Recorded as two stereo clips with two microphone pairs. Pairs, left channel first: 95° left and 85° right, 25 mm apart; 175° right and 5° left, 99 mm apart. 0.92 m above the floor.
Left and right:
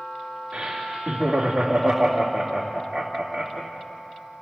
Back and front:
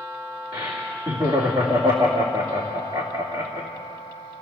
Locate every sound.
0.5 s laughter: 30° right, 2 m